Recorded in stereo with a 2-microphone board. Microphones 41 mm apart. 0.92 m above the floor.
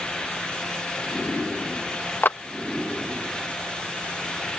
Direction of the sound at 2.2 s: 55° left (ahead or behind).